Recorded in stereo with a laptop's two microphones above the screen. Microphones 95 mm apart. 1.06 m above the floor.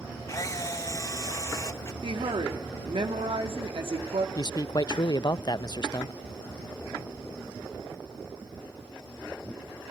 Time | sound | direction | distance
0.3 | a camera shutter | 35° left (ahead or behind) | 1.4 m
2.0 | a woman speaking | 80° right | 2.5 m
4.3 | a man speaking | 45° left (ahead or behind) | 0.6 m